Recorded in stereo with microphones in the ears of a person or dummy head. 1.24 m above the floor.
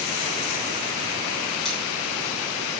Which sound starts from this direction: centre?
Cutlery clinking, at 1.6 s.